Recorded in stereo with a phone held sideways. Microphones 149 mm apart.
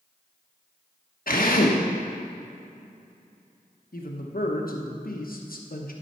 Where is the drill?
80° left, 1.1 m.